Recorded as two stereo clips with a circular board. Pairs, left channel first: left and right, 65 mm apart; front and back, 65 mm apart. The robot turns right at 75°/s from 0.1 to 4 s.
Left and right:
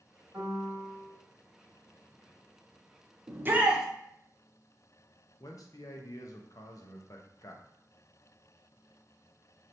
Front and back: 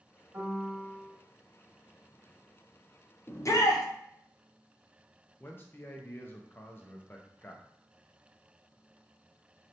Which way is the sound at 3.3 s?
45° right.